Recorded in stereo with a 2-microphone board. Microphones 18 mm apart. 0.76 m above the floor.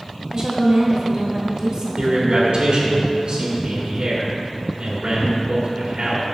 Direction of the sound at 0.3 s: 40° right (ahead or behind).